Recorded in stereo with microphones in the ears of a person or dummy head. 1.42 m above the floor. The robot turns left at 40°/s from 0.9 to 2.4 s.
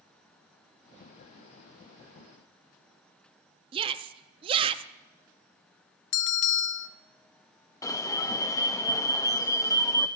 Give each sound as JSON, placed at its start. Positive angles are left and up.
{"t": 3.7, "sound": "a shout", "side_deg": -30, "distance_m": 0.6}
{"t": 6.1, "sound": "a bell", "side_deg": 55, "distance_m": 0.7}
{"t": 7.8, "sound": "an alarm", "side_deg": 15, "distance_m": 0.5}